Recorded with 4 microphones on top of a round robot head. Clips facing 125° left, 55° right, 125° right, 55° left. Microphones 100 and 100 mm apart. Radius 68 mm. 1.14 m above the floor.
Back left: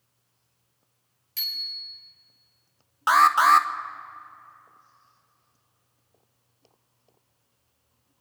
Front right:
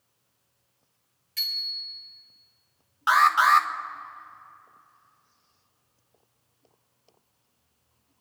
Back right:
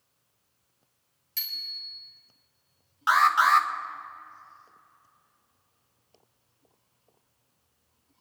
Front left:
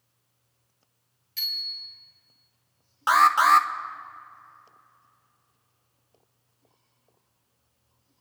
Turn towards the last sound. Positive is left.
turn(degrees=90)